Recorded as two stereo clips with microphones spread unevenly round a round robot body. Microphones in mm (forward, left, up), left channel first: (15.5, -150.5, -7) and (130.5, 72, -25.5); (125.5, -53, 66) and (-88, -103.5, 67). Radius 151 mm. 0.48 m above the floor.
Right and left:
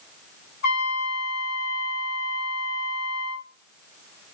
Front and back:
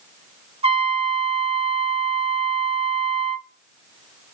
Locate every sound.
0.6 s a trumpet: 125° right, 1.1 m